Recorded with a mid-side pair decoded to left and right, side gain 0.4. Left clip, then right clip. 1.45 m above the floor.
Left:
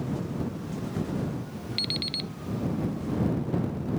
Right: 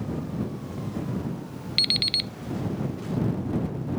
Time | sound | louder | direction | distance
1.8 | an alarm clock | right 7 dB | 55° right | ?